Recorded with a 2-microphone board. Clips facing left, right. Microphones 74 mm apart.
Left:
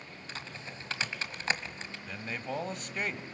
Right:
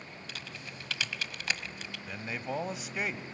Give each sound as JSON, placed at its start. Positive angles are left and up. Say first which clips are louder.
{"t": 0.3, "sound": "typing on a keyboard", "louder": "left 4 dB", "side_deg": 30, "distance_m": 1.6}
{"t": 2.1, "sound": "a man speaking", "louder": "right 1 dB", "side_deg": -5, "distance_m": 1.2}